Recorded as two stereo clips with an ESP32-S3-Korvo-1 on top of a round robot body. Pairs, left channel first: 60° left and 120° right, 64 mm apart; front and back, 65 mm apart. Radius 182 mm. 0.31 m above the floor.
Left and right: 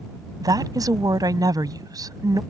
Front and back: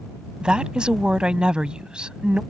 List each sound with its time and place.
0.4 s a woman speaking: 105° right